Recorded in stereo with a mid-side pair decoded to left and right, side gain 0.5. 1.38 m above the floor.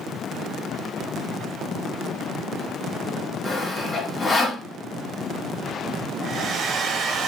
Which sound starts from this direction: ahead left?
Sawing, at 3.5 s.